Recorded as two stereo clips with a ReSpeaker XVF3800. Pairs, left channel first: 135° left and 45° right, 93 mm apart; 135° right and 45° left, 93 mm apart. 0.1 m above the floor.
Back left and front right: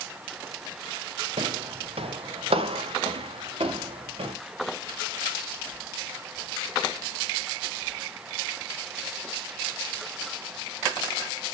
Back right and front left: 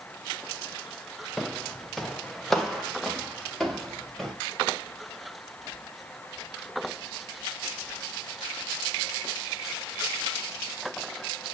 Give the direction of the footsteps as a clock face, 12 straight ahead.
2 o'clock.